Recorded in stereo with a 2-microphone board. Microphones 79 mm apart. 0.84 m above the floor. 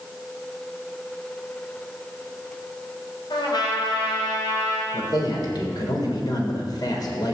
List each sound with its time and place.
3.3 s a trumpet: 65° left (ahead or behind), 5 m
4.9 s a man speaking: 60° left (ahead or behind), 3.5 m